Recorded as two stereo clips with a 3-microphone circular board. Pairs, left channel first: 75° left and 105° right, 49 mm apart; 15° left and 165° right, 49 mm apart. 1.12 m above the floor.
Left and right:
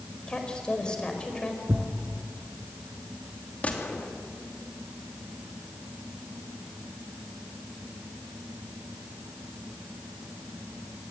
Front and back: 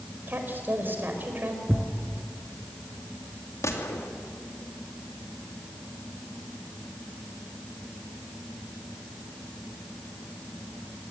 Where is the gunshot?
15° left, 2.5 m.